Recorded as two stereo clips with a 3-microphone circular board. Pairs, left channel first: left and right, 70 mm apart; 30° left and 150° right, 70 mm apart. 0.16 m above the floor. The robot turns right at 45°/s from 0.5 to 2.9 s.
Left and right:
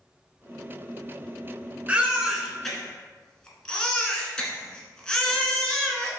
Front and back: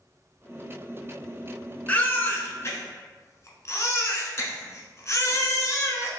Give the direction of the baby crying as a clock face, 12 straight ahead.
1 o'clock.